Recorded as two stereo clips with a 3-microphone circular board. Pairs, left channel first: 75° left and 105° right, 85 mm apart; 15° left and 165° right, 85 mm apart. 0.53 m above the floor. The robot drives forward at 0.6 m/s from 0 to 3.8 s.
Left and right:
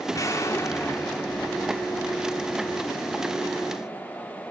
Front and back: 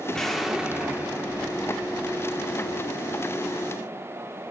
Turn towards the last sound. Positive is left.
turn(degrees=165)